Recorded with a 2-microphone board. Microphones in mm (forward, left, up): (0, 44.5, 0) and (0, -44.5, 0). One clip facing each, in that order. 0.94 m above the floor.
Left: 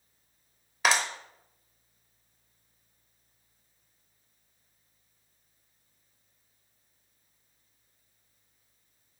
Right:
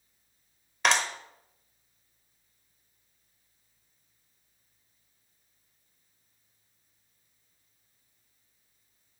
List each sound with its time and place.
0.8 s a clap: 5° left (ahead or behind), 0.9 m